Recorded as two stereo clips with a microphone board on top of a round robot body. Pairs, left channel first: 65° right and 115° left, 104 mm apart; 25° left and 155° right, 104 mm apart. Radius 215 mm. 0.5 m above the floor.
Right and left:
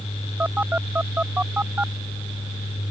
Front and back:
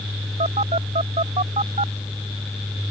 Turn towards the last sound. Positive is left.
turn(degrees=-175)